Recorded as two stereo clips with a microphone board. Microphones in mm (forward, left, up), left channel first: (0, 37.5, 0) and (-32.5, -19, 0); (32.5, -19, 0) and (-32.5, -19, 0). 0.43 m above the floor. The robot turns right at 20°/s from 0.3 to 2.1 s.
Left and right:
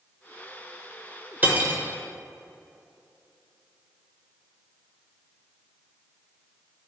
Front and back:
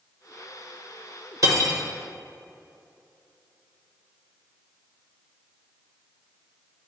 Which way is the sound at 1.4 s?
175° right.